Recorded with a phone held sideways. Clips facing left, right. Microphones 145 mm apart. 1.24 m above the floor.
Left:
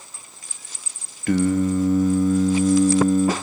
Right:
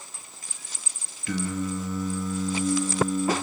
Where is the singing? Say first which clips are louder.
Left 10 dB; 55° left (ahead or behind), 1.3 m.